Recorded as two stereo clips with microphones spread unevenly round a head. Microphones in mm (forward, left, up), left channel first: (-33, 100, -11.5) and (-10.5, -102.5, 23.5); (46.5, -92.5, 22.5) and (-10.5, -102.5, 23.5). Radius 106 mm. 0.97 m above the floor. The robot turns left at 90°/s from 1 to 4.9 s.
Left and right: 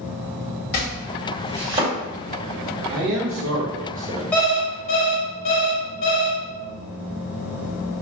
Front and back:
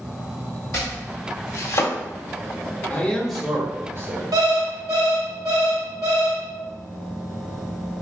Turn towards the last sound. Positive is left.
turn(degrees=130)